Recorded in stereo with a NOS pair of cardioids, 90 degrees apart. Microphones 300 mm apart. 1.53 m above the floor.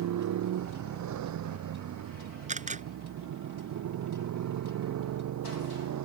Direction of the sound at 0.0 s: 70° right.